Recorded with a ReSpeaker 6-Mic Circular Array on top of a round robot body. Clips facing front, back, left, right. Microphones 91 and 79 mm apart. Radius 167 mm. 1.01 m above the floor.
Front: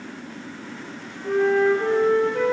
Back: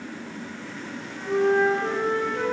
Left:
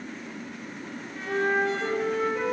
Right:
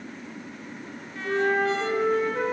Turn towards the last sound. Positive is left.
turn(degrees=-30)